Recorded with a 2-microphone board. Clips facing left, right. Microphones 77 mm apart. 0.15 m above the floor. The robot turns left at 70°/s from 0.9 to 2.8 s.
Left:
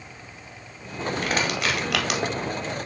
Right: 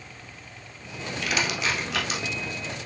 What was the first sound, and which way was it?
Crushing, 30° left (ahead or behind).